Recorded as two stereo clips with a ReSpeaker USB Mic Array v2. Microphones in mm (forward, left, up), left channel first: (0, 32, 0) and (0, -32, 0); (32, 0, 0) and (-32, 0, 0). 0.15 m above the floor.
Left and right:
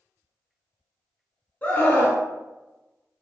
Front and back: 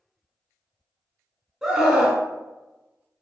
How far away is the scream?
About 1.3 m.